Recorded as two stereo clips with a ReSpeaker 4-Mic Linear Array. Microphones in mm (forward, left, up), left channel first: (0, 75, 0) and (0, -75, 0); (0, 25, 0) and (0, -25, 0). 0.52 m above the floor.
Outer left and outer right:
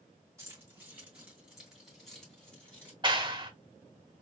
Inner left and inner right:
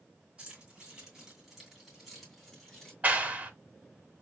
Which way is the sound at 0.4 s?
20° right (ahead or behind).